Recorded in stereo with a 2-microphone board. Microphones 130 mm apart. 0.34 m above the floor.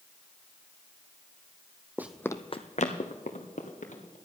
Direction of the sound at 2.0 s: 15° right (ahead or behind).